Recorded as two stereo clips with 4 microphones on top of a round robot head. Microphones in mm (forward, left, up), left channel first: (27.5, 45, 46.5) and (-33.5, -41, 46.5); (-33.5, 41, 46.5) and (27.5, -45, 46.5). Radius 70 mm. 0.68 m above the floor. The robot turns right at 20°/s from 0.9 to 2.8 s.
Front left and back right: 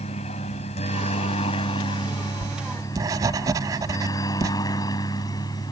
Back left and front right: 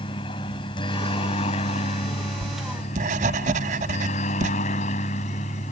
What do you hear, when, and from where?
0.0 s a helicopter: 80° left; by 5.7 s 110° left
2.4 s writing: 75° right; by 4.5 s 65° right